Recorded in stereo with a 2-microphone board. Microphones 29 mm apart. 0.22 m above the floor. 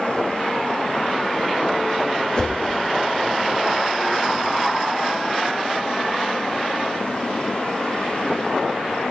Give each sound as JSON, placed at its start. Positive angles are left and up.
{"t": 2.4, "sound": "a whoosh", "side_deg": 30, "distance_m": 1.5}